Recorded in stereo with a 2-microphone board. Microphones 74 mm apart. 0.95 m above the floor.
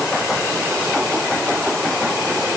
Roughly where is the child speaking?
I don't hear a child speaking.